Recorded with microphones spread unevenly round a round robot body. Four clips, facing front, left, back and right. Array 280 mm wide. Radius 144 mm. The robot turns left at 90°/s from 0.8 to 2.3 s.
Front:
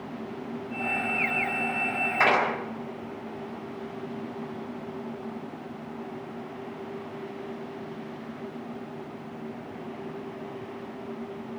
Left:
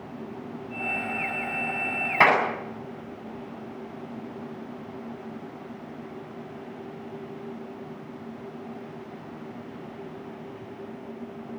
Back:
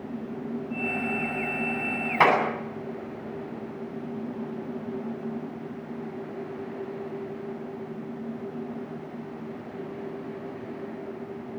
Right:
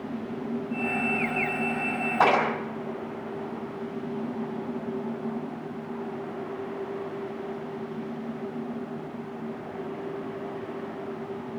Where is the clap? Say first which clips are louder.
Left 1 dB, back 3 dB; 135° left, 8 m; by 2.4 s 125° left, 8 m.